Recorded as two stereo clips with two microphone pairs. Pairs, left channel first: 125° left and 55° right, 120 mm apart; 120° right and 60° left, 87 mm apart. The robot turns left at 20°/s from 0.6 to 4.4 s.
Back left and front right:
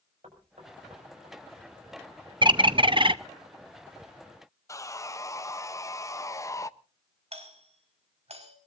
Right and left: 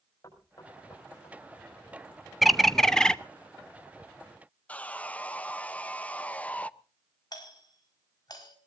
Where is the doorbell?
85° right, 5 m.